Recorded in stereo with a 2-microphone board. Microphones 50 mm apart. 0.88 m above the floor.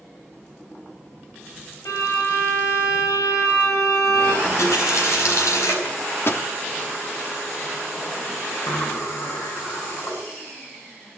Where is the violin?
80° left, 4.5 m.